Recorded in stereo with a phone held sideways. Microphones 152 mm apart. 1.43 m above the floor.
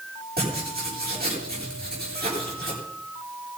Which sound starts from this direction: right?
Writing, at 0.4 s.